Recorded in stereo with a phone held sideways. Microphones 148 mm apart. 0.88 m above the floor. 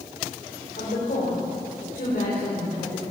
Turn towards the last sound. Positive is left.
turn(degrees=80)